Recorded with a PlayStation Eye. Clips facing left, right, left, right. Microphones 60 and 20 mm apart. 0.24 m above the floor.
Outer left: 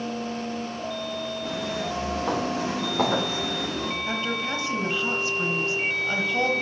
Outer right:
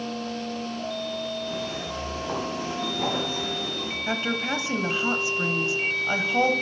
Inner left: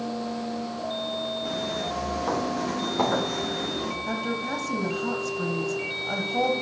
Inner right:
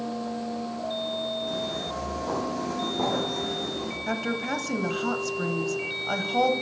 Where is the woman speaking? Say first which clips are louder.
Outer right 5 dB, inner right 4 dB; 20° right (ahead or behind), 0.9 m.